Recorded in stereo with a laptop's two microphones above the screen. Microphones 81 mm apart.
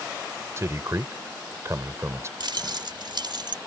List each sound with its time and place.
0.6 s a man speaking: 35° right (ahead or behind)
2.4 s keys jangling: 70° right (ahead or behind)